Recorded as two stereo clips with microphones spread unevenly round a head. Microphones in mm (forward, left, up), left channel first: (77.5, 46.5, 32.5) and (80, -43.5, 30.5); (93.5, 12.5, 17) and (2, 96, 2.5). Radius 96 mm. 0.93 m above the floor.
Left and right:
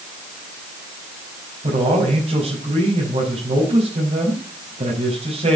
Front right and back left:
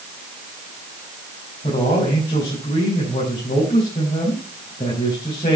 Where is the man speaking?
105° right, 5 m.